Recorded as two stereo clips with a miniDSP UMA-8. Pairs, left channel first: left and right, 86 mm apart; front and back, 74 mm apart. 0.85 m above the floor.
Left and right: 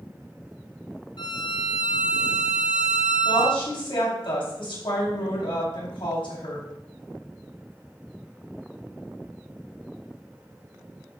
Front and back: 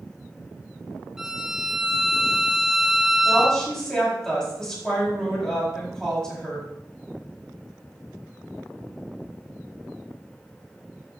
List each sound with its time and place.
1.2 s a violin: 100° left, 1.0 m
3.2 s a woman speaking: 85° left, 5 m